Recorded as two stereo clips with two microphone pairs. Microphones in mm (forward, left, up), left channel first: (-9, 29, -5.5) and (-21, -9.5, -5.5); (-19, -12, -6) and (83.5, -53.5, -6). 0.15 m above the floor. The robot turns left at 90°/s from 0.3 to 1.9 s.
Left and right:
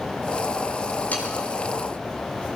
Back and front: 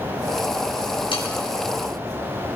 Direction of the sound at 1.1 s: 120° left.